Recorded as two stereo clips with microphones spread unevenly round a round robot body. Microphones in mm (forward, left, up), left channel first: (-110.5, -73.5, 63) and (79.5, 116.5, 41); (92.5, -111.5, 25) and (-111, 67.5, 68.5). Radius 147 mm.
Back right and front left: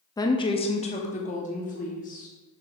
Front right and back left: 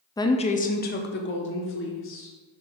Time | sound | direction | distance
0.2 | a woman speaking | 65° right | 0.6 m